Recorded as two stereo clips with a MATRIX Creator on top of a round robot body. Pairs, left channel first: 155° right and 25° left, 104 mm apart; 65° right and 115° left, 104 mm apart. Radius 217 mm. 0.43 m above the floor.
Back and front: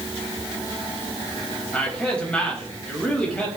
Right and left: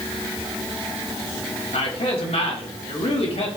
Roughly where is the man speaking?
Right.